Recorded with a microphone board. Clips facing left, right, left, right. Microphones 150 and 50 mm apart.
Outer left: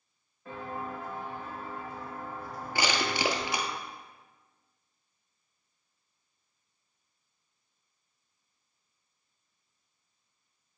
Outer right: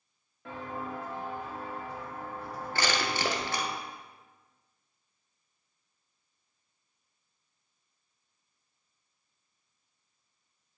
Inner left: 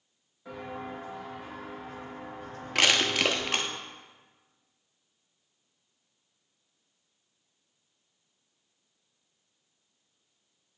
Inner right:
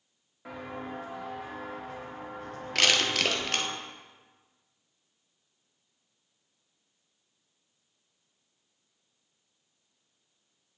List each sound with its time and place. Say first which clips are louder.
0.5 s footsteps: even, even; 90° right, 3 m; by 3.8 s 45° right (ahead or behind), 2.5 m
2.8 s crushing: outer left 1 dB, inner left 1 dB; 15° left (ahead or behind), 0.7 m